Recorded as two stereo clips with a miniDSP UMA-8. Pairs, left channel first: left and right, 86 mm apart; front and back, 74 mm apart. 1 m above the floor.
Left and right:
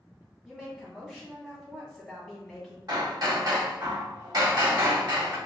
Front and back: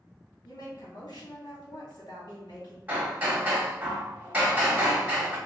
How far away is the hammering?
About 1.3 m.